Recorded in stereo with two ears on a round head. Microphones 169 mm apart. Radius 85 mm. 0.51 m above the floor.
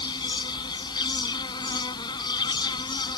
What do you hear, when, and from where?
0.0 s an insect: 20° left (ahead or behind)